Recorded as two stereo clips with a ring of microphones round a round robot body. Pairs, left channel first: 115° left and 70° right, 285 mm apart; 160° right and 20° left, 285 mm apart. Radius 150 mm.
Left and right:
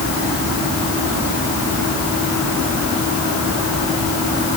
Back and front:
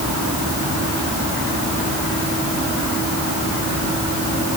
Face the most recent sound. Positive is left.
No sound to turn to.